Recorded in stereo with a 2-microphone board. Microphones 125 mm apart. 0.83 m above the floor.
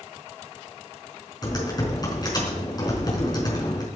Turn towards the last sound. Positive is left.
turn(degrees=30)  # may be behind; listen again after turning